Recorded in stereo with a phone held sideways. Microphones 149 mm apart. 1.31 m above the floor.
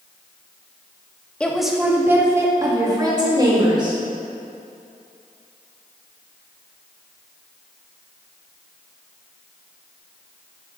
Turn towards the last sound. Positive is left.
turn(degrees=-30)  # may be behind; listen again after turning